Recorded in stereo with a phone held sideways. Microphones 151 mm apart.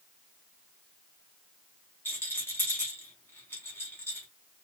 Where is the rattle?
15° left (ahead or behind), 1.9 m.